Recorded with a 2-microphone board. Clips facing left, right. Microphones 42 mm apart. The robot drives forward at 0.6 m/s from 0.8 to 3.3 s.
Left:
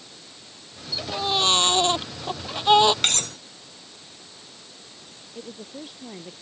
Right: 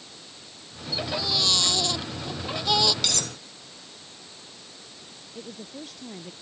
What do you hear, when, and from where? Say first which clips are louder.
1.1 s a baby crying: left 5 dB; 40° left (ahead or behind); by 2.9 s 35° left (ahead or behind)
3.0 s cutlery clinking: left 4 dB; 45° left (ahead or behind)
5.3 s a woman speaking: left 2 dB; 15° left (ahead or behind)